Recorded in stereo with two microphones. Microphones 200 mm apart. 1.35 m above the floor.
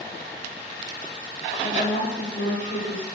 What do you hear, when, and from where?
1.6 s a woman speaking: 45° left (ahead or behind), 2.5 m; by 3.1 s 80° left, 3 m